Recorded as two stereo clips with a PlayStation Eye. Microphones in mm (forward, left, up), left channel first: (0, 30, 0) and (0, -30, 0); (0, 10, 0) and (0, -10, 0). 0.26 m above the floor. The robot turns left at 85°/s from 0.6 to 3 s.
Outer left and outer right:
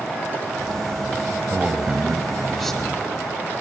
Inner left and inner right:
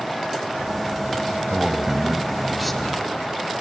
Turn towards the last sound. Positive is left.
turn(degrees=15)  # may be behind; listen again after turning